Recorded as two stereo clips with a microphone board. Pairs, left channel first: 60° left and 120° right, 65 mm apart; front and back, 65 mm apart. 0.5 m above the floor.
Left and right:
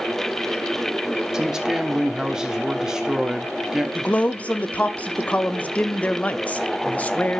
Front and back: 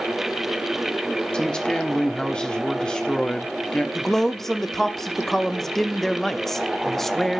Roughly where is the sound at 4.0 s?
Left.